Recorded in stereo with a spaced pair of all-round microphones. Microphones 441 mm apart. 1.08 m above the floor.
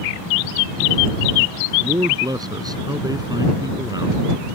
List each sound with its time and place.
1.8 s a man speaking: 10° right (ahead or behind)